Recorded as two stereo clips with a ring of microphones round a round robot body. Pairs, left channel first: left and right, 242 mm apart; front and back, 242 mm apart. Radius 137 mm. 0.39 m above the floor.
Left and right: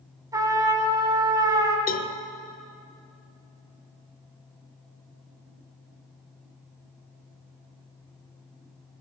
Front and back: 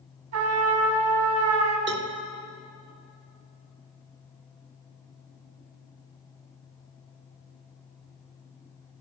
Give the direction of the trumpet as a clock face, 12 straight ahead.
6 o'clock.